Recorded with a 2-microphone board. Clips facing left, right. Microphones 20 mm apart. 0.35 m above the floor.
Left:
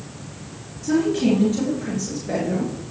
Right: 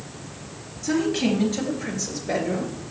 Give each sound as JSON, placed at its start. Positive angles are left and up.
{"t": 0.8, "sound": "a woman speaking", "side_deg": -30, "distance_m": 5.0}